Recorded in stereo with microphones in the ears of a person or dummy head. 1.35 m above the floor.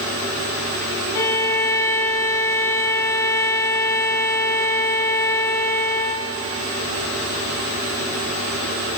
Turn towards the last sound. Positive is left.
turn(degrees=15)  # may be behind; listen again after turning